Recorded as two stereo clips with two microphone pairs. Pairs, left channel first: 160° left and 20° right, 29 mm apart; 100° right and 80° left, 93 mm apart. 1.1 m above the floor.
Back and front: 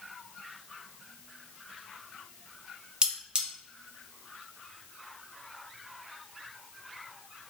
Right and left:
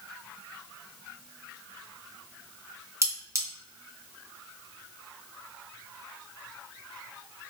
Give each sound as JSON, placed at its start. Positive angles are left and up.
{"t": 3.0, "sound": "cutlery clinking", "azimuth_deg": 30, "distance_m": 0.5}